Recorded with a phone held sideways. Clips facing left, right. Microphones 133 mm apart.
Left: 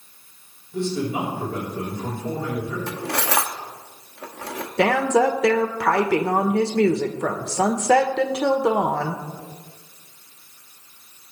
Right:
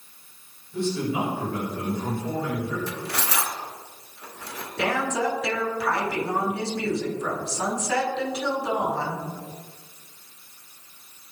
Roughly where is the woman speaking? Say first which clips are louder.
Left 7 dB; left.